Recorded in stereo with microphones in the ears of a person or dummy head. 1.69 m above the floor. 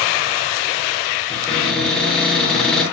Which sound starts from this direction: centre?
A cupboard door, at 1.3 s.